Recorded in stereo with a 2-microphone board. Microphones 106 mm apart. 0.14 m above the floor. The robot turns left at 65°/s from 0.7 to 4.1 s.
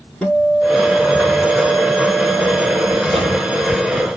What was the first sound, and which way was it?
A guitar, 10° left.